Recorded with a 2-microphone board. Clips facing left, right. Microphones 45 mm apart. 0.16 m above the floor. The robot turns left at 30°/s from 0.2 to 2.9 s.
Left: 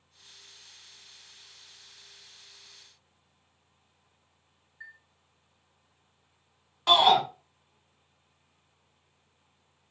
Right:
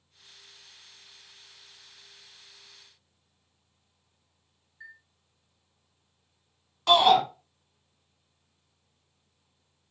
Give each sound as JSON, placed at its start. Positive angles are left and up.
{"t": 4.8, "sound": "a chime", "side_deg": 15, "distance_m": 1.4}
{"t": 6.9, "sound": "a shout", "side_deg": 5, "distance_m": 1.4}